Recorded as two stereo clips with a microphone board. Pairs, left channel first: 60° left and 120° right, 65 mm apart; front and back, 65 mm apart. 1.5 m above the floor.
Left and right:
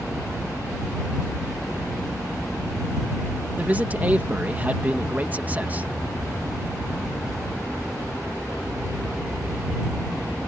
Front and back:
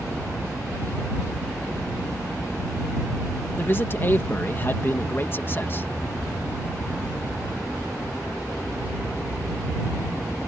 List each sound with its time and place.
3.6 s a man speaking: 55° right